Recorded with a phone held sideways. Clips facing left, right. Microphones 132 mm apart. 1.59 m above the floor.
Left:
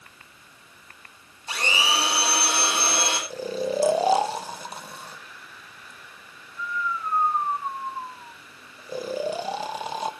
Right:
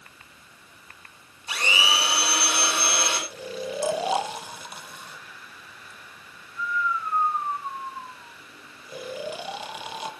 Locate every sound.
1.5 s a blender: 35° left (ahead or behind), 3.5 m
3.3 s snoring: 35° left (ahead or behind), 0.9 m